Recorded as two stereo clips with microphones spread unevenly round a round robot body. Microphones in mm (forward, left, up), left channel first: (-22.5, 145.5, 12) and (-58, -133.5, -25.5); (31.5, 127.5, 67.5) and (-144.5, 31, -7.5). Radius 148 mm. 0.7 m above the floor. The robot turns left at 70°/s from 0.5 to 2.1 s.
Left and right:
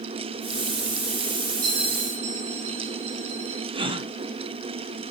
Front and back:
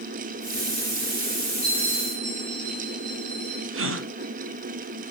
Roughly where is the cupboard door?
I don't hear a cupboard door.